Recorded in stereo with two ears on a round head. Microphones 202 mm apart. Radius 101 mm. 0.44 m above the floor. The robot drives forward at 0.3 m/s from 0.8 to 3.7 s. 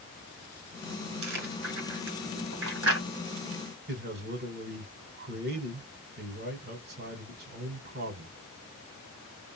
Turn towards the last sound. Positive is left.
turn(degrees=-45)  # may be behind; listen again after turning